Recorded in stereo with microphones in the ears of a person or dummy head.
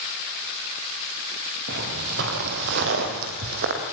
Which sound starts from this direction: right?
Footsteps, at 1.7 s.